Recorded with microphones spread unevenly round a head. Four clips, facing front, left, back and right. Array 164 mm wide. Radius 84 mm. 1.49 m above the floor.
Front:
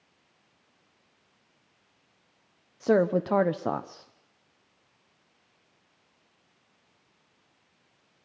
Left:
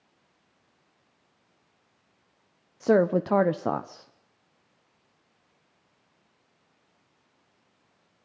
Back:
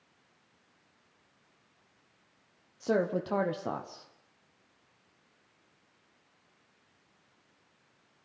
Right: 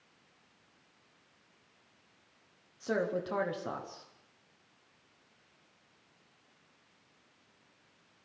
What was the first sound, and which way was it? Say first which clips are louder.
A woman speaking: left 11 dB, front 6 dB; 60° left.